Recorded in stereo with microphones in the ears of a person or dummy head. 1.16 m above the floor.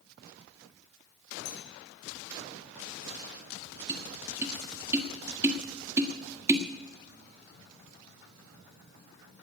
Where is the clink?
85° left, 5.5 m.